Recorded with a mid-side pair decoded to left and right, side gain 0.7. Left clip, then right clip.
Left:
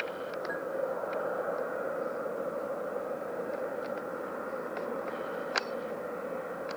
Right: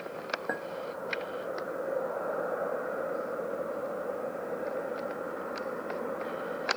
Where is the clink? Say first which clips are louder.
Right 2 dB; 40° right, 1.5 m.